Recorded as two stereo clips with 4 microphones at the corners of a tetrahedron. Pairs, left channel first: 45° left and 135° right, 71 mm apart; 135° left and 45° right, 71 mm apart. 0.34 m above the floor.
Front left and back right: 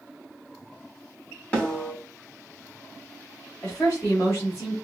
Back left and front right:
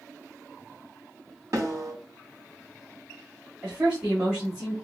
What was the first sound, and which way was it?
A snare drum, 5° right.